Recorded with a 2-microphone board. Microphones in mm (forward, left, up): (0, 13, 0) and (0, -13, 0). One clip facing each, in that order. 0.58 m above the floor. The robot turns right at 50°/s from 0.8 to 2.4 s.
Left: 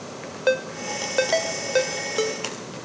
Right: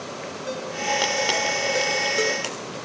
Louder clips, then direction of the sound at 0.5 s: Left 3 dB; 75° left (ahead or behind).